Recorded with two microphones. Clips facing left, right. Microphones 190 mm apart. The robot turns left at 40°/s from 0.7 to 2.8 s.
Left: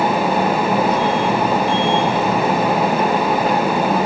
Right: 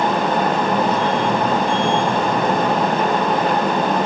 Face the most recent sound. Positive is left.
No sound to turn to.